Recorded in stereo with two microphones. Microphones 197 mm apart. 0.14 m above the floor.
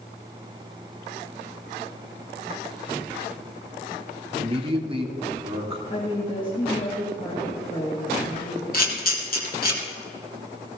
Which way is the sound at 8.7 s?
50° left (ahead or behind).